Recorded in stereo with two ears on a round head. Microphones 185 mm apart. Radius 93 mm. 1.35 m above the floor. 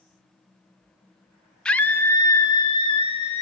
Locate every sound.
1.6 s a scream: 5° left (ahead or behind), 0.8 m; by 3.4 s 30° left (ahead or behind), 1.6 m